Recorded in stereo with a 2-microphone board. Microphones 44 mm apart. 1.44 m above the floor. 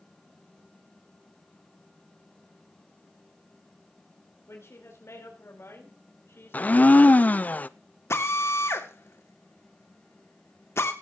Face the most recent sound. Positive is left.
turn(degrees=80)